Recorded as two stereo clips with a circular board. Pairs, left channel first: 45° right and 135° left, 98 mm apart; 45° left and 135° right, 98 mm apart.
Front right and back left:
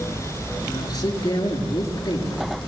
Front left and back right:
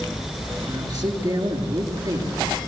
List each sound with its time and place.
0.7 s a man speaking: 95° right, 6.5 m